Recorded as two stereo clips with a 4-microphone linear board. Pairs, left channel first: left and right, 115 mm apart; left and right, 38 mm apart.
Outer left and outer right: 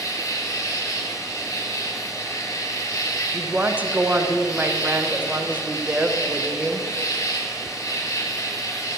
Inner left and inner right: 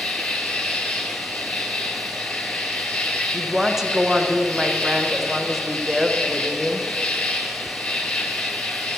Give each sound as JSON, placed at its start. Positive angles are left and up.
{"t": 0.0, "sound": "an insect", "side_deg": 30, "distance_m": 1.3}
{"t": 3.3, "sound": "a woman speaking", "side_deg": -15, "distance_m": 0.7}